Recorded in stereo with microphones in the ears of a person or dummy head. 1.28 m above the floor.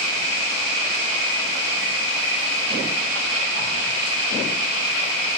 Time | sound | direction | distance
0.0 | an insect | 70° right (ahead or behind) | 1.2 m